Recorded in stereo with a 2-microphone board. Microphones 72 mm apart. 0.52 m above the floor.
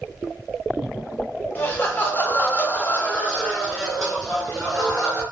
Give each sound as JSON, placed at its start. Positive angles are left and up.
{"t": 1.6, "sound": "laughter", "side_deg": 25, "distance_m": 1.1}